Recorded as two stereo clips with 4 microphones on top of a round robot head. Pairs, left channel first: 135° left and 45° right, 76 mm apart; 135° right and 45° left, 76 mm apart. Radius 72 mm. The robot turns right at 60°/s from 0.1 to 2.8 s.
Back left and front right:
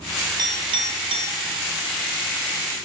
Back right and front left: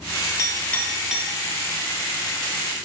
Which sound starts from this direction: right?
A clink, at 0.4 s.